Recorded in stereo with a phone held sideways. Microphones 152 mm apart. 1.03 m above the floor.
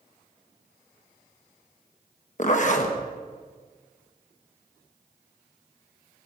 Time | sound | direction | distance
2.4 | a zipper | 55° left (ahead or behind) | 1.1 m